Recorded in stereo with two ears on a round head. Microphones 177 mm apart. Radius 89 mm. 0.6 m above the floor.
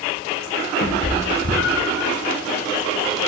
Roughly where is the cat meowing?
Left.